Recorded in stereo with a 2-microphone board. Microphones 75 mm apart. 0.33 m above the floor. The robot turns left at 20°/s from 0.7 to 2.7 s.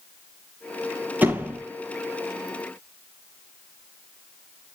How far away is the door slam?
About 5.5 m.